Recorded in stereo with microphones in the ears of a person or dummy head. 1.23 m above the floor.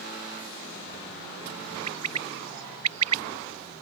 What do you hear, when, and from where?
1.9 s a bird: 85° right